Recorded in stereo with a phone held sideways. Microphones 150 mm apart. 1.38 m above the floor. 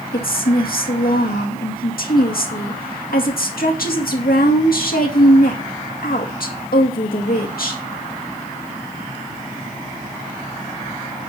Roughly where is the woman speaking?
Left.